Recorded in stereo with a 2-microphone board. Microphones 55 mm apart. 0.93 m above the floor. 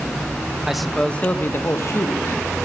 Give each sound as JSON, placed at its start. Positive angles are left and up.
{"t": 0.7, "sound": "a man speaking", "side_deg": -5, "distance_m": 0.6}